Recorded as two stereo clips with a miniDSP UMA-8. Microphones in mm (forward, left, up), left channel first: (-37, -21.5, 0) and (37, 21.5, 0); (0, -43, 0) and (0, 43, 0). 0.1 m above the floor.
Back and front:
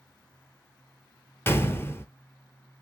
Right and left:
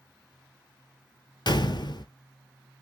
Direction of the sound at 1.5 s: 95° right.